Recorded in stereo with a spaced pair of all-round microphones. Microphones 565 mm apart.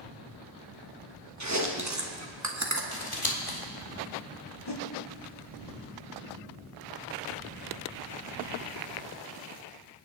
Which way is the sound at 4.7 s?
45° left (ahead or behind).